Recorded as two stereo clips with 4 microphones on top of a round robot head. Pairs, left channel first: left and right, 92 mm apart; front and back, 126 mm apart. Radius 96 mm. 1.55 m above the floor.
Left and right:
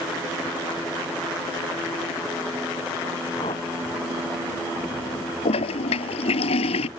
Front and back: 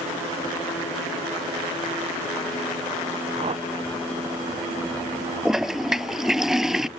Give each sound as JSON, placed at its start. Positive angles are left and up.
{"t": 3.4, "sound": "a whoosh", "azimuth_deg": 145}
{"t": 5.5, "sound": "a toilet flushing", "azimuth_deg": 95}